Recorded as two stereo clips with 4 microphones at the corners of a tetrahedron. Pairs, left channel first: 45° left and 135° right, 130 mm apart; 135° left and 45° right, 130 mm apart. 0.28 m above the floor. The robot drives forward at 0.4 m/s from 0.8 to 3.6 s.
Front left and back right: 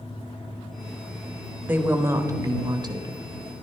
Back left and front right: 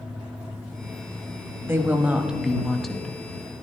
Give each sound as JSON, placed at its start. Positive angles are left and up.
{"t": 1.6, "sound": "a woman speaking", "azimuth_deg": -80, "distance_m": 1.0}